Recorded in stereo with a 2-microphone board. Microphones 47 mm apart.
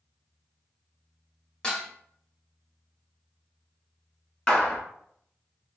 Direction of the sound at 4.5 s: 20° left (ahead or behind).